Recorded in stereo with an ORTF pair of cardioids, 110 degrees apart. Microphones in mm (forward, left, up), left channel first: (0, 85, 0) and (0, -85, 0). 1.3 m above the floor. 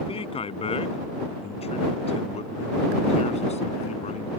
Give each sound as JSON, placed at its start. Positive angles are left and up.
{"t": 0.1, "sound": "a man speaking", "azimuth_deg": 35}